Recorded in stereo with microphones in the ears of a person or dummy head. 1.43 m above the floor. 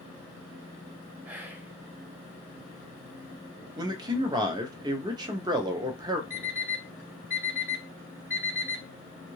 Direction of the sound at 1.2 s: 10° right (ahead or behind).